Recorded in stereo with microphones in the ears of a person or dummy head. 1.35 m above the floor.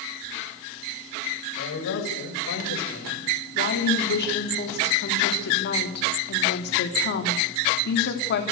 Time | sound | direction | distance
1.6 | a man speaking | 70° left (ahead or behind) | 8 m
3.5 | a woman speaking | 55° left (ahead or behind) | 3.5 m